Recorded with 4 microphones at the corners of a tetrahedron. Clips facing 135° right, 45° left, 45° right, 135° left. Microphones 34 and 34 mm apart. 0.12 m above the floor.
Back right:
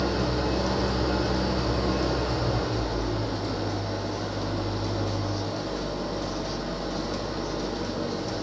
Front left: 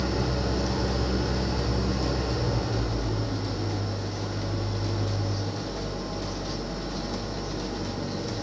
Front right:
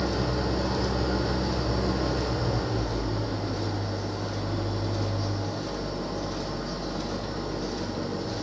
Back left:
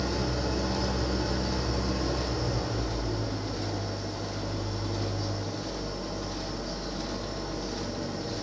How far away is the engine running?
About 2 m.